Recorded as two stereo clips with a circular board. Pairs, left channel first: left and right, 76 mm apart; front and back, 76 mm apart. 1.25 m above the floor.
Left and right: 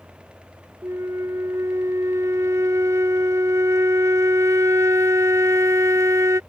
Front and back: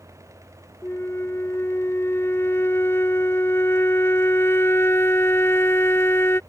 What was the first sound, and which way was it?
A flute, 50° right.